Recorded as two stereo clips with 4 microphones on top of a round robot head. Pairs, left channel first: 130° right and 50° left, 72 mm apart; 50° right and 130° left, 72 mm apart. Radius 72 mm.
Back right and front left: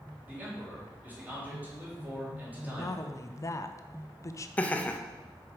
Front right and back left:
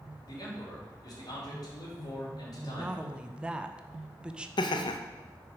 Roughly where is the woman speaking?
Behind right.